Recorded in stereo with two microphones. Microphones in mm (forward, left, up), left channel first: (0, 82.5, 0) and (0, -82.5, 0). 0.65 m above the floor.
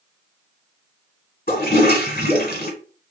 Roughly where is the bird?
I don't hear a bird.